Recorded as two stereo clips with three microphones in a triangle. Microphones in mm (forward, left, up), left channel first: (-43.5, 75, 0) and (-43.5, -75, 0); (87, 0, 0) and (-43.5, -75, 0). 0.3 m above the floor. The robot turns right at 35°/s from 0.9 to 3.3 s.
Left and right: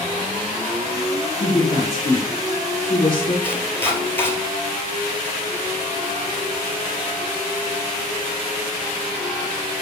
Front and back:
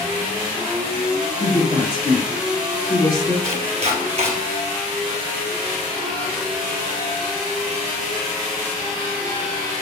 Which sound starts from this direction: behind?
Chopping, at 3.4 s.